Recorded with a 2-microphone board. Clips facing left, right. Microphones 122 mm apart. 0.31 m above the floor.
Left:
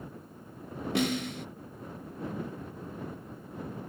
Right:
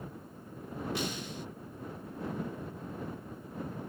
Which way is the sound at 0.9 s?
80° left.